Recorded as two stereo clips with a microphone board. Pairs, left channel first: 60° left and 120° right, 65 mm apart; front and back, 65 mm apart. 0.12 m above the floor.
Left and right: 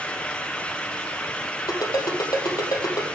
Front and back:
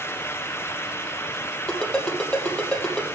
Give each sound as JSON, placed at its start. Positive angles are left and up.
{"t": 1.7, "sound": "a ringtone", "azimuth_deg": 75, "distance_m": 3.0}